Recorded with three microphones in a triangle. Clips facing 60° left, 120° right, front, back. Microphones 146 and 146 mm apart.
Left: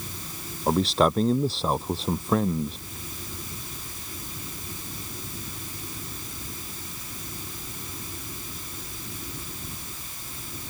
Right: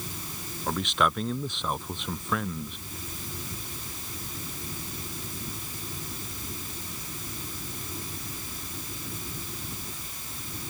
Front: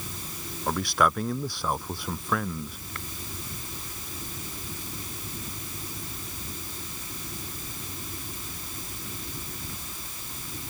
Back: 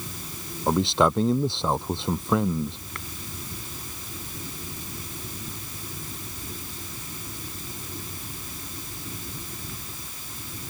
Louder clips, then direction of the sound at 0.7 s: Left 6 dB, back 4 dB; 115° left.